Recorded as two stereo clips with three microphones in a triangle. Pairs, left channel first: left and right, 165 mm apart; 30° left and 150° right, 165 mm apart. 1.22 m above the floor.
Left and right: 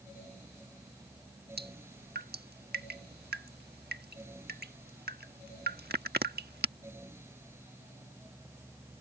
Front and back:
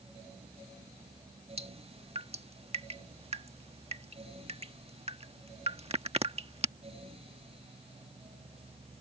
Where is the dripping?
95° right.